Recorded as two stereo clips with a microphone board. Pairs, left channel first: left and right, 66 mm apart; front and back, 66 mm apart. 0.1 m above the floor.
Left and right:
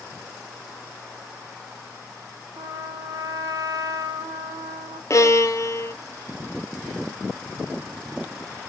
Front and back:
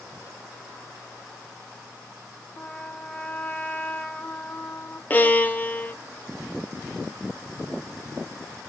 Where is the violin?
60° left, 1.1 m.